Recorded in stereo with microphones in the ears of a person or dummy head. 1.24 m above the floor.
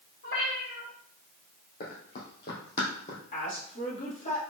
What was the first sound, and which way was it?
A cat meowing, 55° left (ahead or behind).